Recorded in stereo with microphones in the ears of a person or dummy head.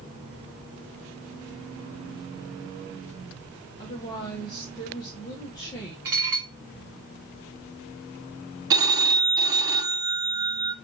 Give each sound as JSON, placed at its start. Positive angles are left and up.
{"t": 3.8, "sound": "a woman speaking", "side_deg": 25, "distance_m": 1.7}
{"t": 6.0, "sound": "dishes clattering", "side_deg": -10, "distance_m": 0.6}
{"t": 8.7, "sound": "a phone ringing", "side_deg": -20, "distance_m": 0.9}